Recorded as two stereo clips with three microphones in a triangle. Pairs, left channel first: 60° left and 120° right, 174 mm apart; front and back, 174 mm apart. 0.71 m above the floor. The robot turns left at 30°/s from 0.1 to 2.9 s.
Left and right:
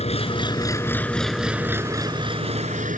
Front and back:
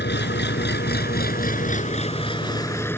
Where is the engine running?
5° left; by 3.0 s 75° right.